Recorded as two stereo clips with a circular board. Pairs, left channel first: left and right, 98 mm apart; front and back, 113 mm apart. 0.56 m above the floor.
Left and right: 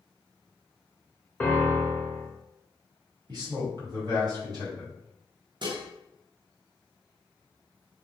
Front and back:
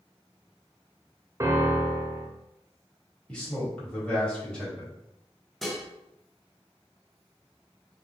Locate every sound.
1.4 s a piano: 150° left, 0.5 m
3.3 s a man speaking: 80° right, 1.6 m
5.6 s dishes clattering: 90° right, 0.7 m